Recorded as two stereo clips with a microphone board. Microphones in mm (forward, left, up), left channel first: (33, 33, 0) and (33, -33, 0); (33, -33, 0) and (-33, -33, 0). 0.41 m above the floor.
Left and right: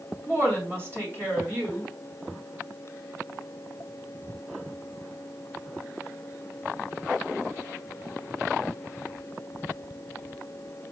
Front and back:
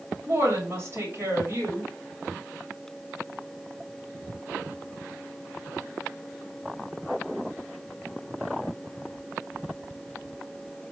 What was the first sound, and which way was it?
A woman speaking, 135° right.